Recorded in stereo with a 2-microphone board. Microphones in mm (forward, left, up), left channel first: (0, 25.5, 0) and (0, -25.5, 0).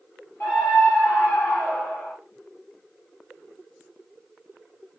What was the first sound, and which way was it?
A scream, 50° left (ahead or behind).